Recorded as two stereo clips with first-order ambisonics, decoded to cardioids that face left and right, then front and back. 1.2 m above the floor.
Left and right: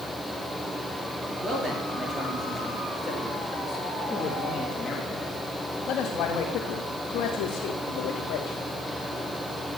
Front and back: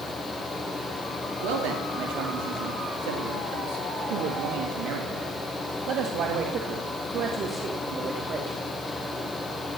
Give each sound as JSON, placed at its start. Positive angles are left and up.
{"t": 1.4, "sound": "a man speaking", "azimuth_deg": -160, "distance_m": 3.0}